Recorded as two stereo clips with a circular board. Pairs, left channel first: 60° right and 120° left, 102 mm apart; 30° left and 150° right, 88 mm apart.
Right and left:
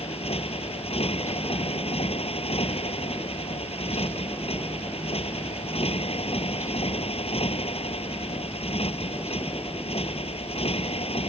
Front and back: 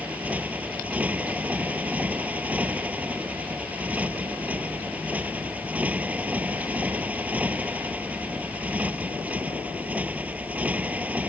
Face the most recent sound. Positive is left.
turn(degrees=-75)